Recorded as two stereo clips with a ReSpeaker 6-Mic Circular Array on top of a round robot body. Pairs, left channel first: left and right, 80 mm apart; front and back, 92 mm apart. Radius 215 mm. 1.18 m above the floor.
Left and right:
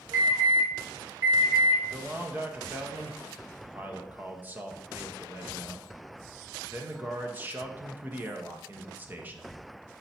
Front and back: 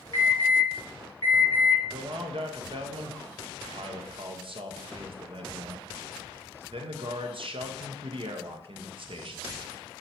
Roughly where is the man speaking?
Behind.